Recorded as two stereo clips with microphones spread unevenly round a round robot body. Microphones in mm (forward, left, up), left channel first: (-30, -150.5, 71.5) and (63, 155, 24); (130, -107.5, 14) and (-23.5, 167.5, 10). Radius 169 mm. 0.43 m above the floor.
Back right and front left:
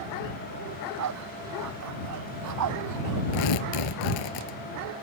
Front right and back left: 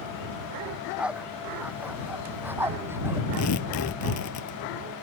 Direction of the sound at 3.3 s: 110° right.